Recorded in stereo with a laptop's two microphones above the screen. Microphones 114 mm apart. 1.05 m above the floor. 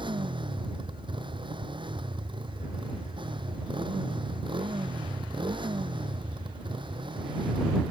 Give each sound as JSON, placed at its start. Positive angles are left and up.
{"t": 0.0, "sound": "a motorcycle", "side_deg": -45}